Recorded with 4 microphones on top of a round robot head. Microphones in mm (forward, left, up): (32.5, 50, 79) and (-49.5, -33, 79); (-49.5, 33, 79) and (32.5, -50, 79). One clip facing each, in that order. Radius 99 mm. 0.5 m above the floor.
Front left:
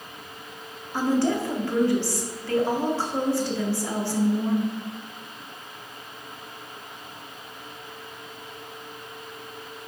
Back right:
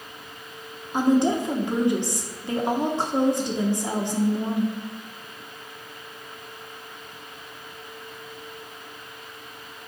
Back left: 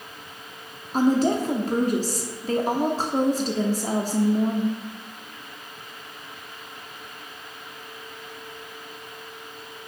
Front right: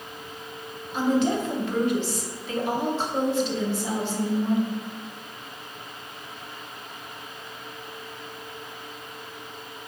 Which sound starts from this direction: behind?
A woman speaking, at 0.9 s.